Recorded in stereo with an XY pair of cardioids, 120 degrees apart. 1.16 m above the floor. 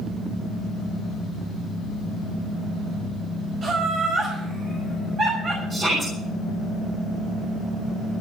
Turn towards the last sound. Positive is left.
turn(degrees=-40)